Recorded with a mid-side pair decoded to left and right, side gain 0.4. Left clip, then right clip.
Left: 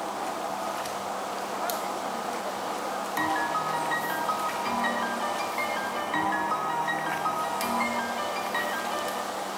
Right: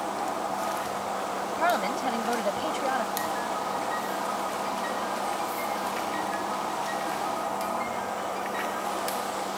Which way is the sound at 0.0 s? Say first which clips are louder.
Right 1 dB; 15° right.